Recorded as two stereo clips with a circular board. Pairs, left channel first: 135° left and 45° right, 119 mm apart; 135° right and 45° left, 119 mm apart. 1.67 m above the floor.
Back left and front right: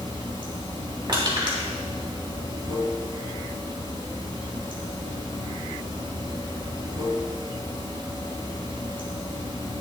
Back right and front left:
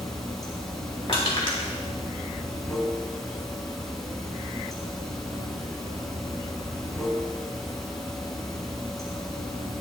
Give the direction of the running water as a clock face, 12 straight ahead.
2 o'clock.